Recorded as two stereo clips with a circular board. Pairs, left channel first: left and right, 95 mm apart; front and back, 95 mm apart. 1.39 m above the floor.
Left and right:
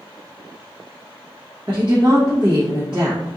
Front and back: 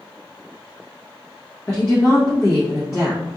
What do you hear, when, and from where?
1.7 s a woman speaking: 60° right, 1.0 m